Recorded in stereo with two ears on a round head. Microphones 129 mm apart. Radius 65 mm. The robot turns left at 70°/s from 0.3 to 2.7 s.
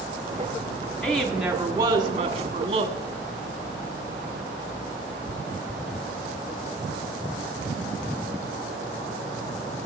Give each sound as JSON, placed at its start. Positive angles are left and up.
{"t": 1.0, "sound": "a woman speaking", "azimuth_deg": 15, "distance_m": 1.3}